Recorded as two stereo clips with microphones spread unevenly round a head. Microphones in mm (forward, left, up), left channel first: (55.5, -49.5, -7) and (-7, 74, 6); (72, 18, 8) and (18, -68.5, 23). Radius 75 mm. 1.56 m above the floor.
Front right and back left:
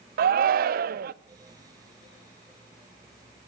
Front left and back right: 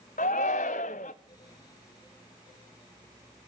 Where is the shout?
100° left, 0.5 m.